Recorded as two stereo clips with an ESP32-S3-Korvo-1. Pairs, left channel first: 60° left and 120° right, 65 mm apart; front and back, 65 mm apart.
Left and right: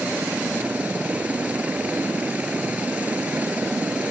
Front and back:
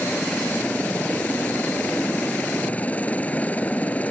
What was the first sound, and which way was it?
A helicopter, 60° right.